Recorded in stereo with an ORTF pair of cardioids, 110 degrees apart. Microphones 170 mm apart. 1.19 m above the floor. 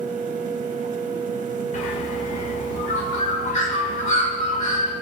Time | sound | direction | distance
0.0 | a fan | 50° right | 0.9 m
1.7 | a bird | 45° left | 2 m